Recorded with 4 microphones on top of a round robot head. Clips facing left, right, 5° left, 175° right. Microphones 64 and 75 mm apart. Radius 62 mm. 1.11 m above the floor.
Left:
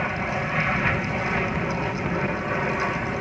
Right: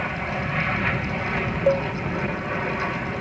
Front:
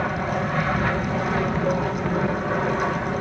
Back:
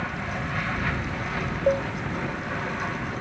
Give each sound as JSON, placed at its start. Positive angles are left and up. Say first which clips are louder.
{"t": 0.0, "sound": "an aircraft", "louder": "left 1 dB, front 6 dB", "azimuth_deg": 10}
{"t": 1.7, "sound": "a cowbell", "louder": "right 7 dB, back 5 dB", "azimuth_deg": -100}